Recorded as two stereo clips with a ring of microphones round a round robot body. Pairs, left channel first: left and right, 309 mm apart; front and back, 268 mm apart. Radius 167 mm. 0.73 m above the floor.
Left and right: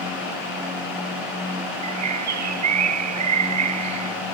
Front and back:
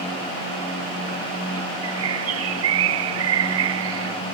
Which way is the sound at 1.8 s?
130° right.